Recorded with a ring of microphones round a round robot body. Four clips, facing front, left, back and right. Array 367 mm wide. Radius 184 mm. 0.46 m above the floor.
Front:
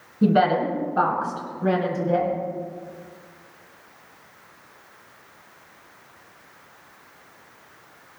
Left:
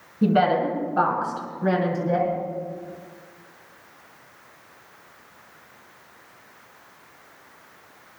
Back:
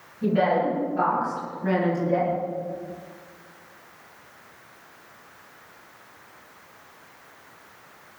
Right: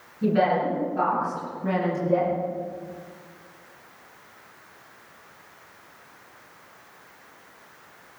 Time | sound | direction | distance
0.2 | a woman speaking | 40° left | 6 m